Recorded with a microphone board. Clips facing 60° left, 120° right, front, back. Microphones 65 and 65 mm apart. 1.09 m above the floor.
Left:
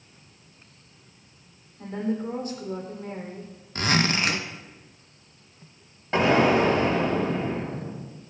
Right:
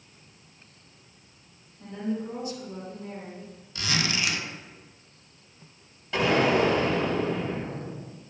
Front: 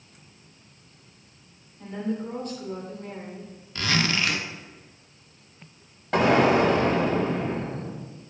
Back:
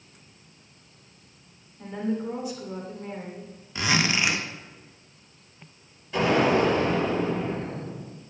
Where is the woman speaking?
100° left, 3 m.